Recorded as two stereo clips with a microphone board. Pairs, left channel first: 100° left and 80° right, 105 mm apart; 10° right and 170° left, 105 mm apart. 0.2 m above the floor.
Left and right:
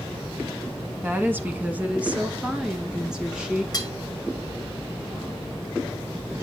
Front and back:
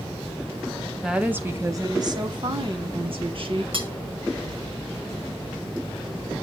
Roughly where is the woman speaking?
Right.